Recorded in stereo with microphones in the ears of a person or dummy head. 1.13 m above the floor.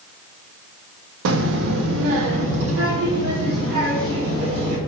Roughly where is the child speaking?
Right.